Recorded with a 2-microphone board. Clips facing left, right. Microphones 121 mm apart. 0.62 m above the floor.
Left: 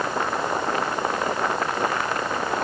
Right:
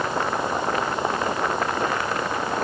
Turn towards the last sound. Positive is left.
No sound to turn to.